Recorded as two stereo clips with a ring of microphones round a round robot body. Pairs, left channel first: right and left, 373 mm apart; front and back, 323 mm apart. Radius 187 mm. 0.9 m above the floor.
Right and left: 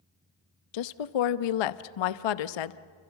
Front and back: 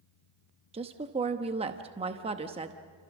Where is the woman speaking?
105° right, 0.8 m.